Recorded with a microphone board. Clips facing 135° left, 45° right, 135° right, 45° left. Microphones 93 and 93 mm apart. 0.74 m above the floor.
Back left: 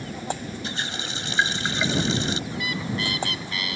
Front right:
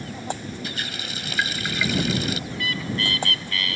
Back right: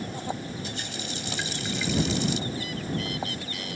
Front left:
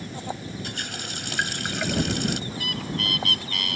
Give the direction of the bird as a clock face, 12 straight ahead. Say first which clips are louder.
Even, even; 10 o'clock.